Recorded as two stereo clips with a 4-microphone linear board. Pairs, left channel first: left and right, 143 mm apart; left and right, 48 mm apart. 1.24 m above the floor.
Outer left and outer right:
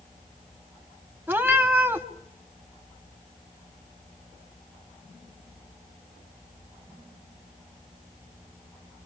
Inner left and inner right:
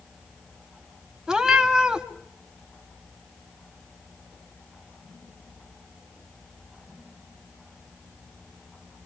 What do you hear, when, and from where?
1.3 s a cat meowing: 15° right (ahead or behind), 1.3 m